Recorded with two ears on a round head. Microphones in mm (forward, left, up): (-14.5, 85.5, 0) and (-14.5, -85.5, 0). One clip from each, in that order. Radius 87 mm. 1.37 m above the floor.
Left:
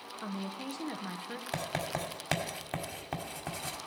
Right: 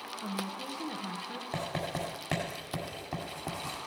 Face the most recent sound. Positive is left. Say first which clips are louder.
# even
turn(degrees=50)  # may be behind; listen again after turning